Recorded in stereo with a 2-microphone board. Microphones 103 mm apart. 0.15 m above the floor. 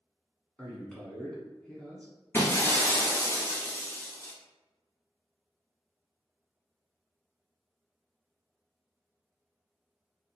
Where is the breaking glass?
25° left (ahead or behind), 1.1 m.